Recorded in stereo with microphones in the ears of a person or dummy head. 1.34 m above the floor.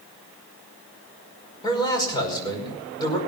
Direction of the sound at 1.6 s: 25° left (ahead or behind).